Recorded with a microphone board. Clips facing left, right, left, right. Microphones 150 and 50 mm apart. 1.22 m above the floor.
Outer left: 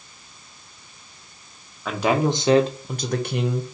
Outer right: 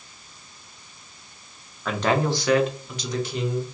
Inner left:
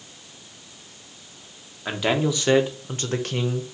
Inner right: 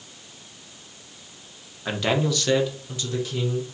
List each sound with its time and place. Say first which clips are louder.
1.9 s a man speaking: outer left 2 dB, inner left 1 dB; 5° left (ahead or behind), 1.0 m; by 3.6 s 70° left (ahead or behind), 1.0 m